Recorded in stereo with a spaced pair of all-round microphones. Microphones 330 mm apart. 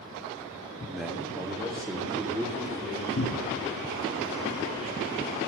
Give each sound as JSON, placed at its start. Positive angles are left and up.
{"t": 0.9, "sound": "a man speaking", "side_deg": 5, "distance_m": 0.6}
{"t": 3.2, "sound": "a cupboard door", "side_deg": 45, "distance_m": 0.5}